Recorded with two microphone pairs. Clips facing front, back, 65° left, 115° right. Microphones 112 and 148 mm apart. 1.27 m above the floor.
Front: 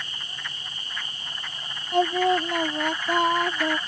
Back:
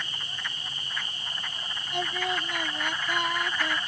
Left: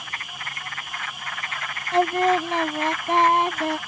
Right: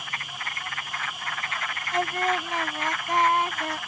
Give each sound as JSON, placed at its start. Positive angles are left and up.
{"t": 1.9, "sound": "singing", "azimuth_deg": 25}